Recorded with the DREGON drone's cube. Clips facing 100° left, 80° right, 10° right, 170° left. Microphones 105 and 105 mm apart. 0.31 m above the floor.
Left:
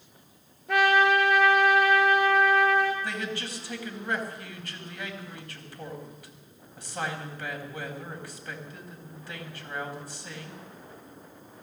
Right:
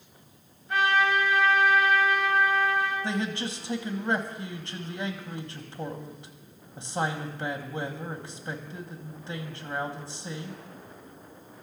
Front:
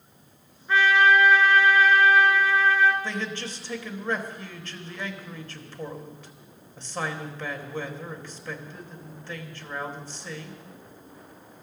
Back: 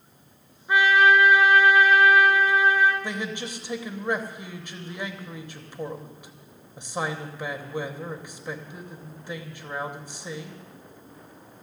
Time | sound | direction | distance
0.7 | a trumpet | 95° left | 2.5 m
3.0 | a man speaking | 125° right | 1.6 m